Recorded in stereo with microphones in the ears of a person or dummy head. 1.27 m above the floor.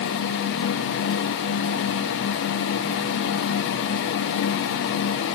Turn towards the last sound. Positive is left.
No sound to turn to.